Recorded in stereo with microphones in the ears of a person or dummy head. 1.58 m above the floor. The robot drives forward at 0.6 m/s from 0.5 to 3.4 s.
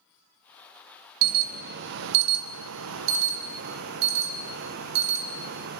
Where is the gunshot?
I don't hear a gunshot.